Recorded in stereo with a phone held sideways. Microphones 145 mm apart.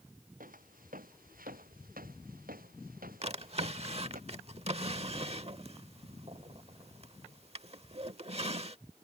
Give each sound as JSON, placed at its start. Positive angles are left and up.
{"t": 0.4, "sound": "footsteps", "side_deg": -75}
{"t": 3.2, "sound": "a drawer", "side_deg": -45}